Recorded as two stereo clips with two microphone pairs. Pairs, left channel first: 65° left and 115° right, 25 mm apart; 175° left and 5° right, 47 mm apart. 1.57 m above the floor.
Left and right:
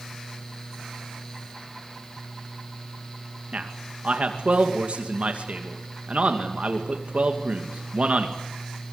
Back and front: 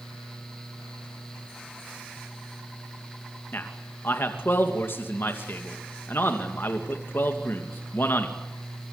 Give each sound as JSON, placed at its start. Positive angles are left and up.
{"t": 3.5, "sound": "a man speaking", "azimuth_deg": -145, "distance_m": 2.5}